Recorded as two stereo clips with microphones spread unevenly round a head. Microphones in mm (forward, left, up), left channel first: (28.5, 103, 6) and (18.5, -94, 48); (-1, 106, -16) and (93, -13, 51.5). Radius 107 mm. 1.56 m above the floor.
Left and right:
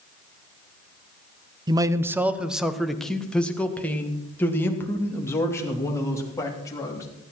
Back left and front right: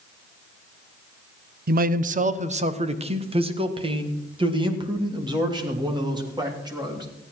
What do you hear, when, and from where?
1.7 s a man speaking: 20° right, 0.7 m; by 7.0 s 10° left, 3.5 m